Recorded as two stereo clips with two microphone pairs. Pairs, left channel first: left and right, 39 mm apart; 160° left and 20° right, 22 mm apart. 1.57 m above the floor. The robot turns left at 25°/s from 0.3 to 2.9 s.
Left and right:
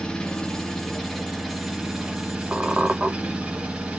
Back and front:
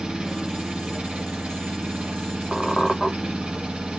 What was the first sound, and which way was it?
An engine running, 25° left.